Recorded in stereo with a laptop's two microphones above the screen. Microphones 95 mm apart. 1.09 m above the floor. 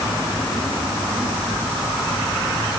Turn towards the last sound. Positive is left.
No sound to turn to.